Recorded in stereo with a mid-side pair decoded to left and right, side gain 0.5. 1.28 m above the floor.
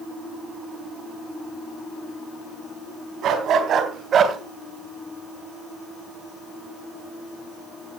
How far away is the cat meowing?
No cat meowing in this recording.